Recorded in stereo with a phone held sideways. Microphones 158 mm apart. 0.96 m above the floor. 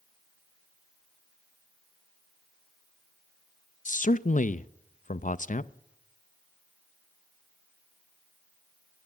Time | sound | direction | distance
3.9 | a man speaking | 55° left (ahead or behind) | 0.5 m